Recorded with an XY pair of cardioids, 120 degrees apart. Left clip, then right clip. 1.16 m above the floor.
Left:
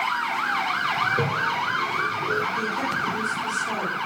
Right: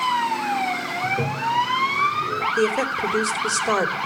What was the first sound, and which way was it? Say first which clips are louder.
A toilet flushing: even; 15° left.